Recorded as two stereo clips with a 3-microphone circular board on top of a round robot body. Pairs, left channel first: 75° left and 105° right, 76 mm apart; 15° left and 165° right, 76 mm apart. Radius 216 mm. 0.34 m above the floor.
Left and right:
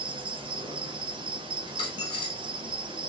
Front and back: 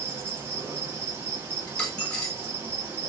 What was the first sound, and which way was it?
An insect, 100° right.